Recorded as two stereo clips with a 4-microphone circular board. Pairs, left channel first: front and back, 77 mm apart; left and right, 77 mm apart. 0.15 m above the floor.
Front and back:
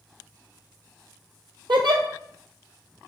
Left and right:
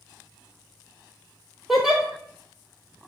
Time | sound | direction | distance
1.7 | a giggle | 175° right | 0.8 m